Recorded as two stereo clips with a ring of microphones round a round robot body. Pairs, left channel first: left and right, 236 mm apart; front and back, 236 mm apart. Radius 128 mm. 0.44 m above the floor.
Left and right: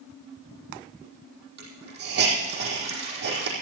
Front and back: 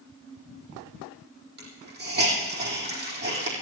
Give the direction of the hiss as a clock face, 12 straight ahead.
4 o'clock.